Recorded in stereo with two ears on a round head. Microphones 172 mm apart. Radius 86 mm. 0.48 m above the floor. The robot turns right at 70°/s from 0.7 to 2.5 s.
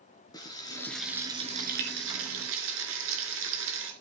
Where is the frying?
160° left, 3.5 m; by 3.9 s 75° right, 3.5 m.